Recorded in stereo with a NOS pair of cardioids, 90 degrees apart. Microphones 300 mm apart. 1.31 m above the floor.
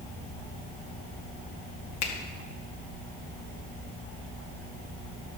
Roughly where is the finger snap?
Ahead left.